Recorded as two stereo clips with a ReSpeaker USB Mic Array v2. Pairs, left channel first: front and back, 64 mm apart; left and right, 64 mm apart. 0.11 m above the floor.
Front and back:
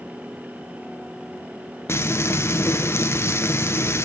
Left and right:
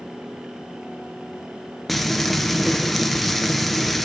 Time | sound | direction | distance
1.9 | frying | straight ahead | 0.8 m